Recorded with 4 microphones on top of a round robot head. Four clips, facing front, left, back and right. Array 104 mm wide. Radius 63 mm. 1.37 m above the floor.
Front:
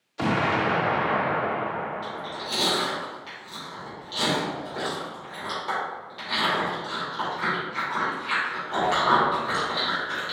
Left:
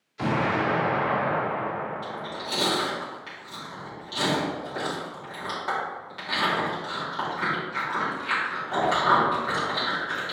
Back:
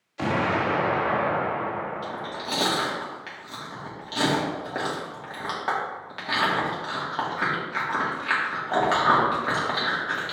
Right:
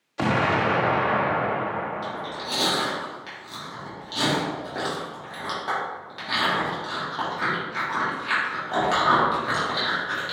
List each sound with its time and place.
0.2 s an explosion: 85° right, 1.3 m
2.0 s chewing: 165° right, 2.5 m